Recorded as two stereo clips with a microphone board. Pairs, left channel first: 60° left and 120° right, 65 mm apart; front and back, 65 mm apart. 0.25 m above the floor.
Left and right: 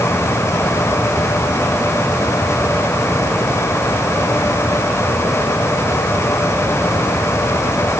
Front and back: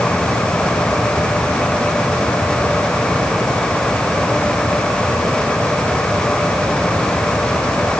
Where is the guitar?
No guitar in this recording.